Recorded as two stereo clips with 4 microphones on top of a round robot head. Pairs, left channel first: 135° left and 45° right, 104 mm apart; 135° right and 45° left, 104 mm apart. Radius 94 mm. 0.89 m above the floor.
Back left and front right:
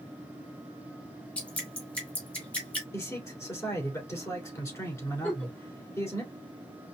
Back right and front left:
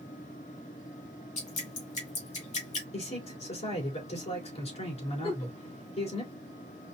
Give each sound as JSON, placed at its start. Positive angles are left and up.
{"t": 1.4, "sound": "dripping", "azimuth_deg": -145, "distance_m": 1.9}
{"t": 2.9, "sound": "a man speaking", "azimuth_deg": -160, "distance_m": 3.0}
{"t": 5.2, "sound": "a giggle", "azimuth_deg": -155, "distance_m": 2.0}